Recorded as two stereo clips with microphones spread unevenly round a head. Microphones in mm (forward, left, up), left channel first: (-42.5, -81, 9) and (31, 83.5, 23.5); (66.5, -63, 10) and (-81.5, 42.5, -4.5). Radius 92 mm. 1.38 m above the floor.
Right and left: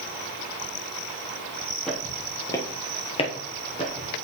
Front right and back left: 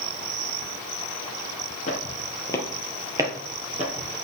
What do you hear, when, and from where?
1.9 s footsteps: 25° right, 1.8 m; by 4.1 s 175° right, 2 m